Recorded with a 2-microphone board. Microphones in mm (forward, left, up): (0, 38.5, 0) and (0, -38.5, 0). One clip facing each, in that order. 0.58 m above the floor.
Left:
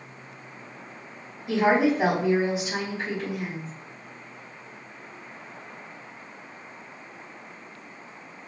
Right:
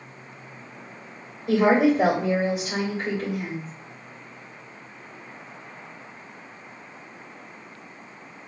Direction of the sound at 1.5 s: 50° right (ahead or behind).